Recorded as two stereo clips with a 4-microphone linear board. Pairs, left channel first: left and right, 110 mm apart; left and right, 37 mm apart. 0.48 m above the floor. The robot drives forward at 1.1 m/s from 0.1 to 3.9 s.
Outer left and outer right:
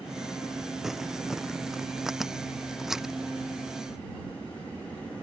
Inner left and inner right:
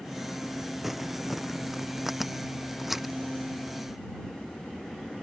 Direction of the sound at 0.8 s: 5° right (ahead or behind).